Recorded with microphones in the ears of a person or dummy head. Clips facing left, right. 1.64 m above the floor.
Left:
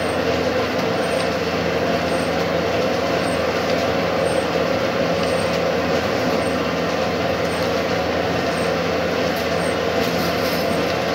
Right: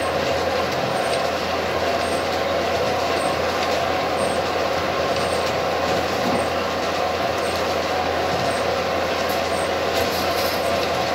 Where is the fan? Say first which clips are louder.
Left 2 dB; 50° left (ahead or behind), 3 m.